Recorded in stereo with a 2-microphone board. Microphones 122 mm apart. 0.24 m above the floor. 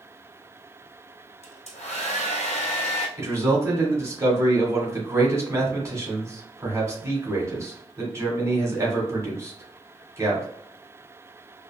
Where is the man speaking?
25° right (ahead or behind), 1.5 m.